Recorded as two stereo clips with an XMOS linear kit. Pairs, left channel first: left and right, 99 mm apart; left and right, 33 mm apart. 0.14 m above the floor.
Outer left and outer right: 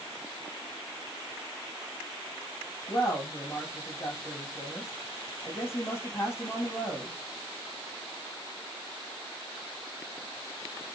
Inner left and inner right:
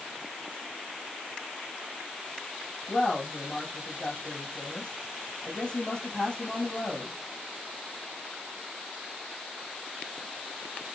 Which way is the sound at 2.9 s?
25° left (ahead or behind).